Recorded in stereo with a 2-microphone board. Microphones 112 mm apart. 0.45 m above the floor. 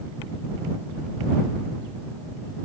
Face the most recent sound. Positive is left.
No sound to turn to.